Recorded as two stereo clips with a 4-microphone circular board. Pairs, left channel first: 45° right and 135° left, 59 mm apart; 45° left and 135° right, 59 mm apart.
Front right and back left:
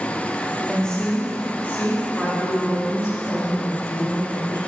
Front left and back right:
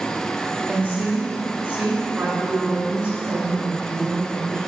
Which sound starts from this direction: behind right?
A woman speaking, at 0.7 s.